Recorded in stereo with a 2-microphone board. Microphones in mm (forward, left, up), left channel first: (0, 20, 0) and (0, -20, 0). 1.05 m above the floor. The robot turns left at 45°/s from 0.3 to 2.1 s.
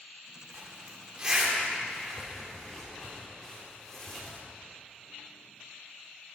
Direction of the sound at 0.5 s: 55° right (ahead or behind).